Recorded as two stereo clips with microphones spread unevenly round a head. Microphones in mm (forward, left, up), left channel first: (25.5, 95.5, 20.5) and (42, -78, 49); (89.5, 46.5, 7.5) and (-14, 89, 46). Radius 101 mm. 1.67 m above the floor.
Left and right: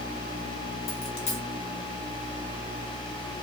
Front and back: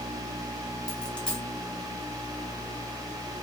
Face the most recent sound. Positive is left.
turn(degrees=95)